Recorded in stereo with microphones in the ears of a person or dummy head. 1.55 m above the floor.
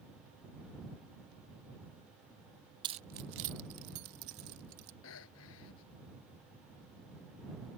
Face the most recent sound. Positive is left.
turn(degrees=75)  # may be behind; listen again after turning